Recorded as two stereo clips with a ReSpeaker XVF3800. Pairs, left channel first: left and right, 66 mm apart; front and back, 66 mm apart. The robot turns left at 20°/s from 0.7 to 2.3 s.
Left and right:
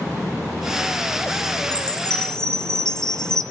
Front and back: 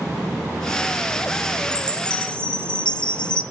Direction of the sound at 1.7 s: 45° left.